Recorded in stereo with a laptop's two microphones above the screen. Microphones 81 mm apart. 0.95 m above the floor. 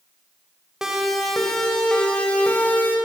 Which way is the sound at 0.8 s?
5° right (ahead or behind).